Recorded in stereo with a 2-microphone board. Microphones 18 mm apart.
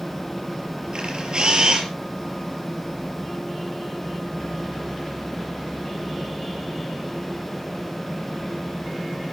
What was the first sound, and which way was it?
A camera shutter, 55° right (ahead or behind).